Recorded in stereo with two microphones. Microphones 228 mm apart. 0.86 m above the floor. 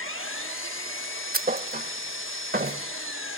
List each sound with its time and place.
0.0 s an engine running: 65° left (ahead or behind), 1.2 m
1.3 s a thud: 40° right (ahead or behind), 0.7 m